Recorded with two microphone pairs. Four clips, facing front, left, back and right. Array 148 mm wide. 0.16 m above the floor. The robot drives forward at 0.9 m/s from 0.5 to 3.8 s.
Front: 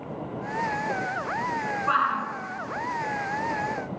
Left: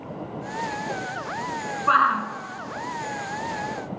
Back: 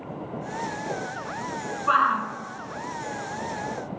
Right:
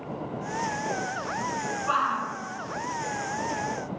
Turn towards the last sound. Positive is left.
turn(degrees=150)